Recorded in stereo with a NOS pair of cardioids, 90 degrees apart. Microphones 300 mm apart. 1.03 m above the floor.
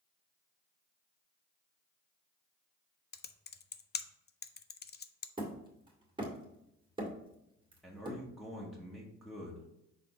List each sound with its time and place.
3.1 s typing on a keyboard: 35° left, 0.6 m
5.4 s hammering: 15° right, 2.0 m
7.8 s a man speaking: straight ahead, 1.8 m